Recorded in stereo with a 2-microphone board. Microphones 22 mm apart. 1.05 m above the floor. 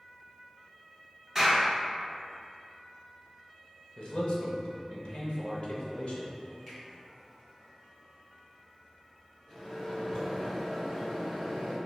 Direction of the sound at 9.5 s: 35° left (ahead or behind).